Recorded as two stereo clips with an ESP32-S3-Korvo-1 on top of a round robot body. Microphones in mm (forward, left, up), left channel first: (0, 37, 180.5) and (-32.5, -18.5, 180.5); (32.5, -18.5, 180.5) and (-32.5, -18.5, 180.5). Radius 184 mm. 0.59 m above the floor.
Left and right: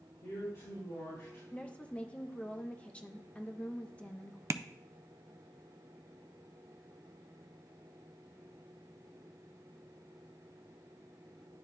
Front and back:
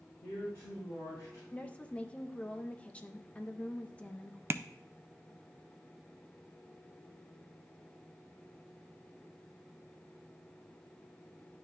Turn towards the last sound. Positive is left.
turn(degrees=-145)